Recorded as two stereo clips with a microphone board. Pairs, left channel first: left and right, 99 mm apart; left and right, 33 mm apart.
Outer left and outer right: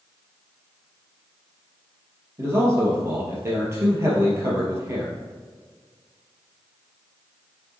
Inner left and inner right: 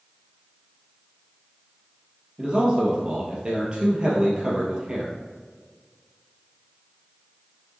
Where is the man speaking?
25° right (ahead or behind), 2.5 m.